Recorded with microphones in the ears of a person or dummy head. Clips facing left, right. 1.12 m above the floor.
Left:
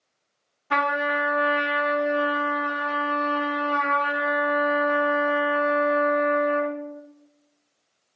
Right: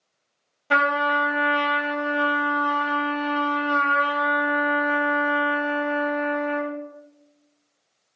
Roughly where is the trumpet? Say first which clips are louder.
Right 2 dB; right.